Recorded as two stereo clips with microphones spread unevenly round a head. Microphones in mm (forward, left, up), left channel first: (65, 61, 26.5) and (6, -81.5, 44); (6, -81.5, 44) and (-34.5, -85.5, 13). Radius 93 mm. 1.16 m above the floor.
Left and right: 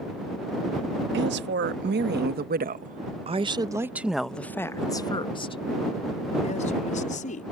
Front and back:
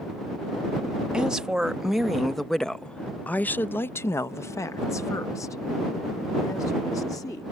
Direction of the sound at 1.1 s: 100° right.